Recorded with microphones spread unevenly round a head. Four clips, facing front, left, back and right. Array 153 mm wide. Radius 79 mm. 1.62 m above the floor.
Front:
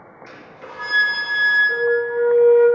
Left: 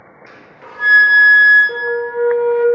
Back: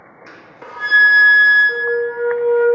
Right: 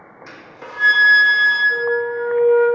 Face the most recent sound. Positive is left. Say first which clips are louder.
# even, even
turn(degrees=110)